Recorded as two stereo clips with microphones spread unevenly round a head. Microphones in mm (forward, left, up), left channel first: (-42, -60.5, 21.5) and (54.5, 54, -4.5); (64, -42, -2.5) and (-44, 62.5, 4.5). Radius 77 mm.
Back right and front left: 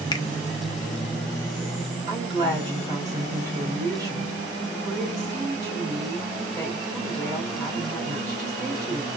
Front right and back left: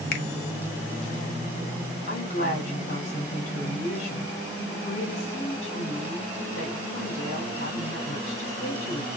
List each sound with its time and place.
0.1 s a finger snap: 75° right, 0.8 m
2.1 s a woman speaking: 15° right, 4 m